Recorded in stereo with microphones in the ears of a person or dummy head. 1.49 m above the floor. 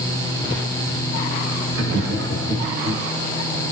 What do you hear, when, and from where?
1.7 s laughter: 75° right (ahead or behind), 2 m; by 3.0 s 85° right, 3 m